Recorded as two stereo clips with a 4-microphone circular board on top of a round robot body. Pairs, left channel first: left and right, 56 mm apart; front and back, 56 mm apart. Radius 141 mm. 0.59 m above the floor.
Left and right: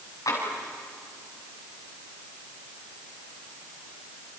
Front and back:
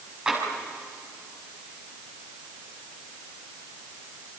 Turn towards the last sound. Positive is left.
turn(degrees=110)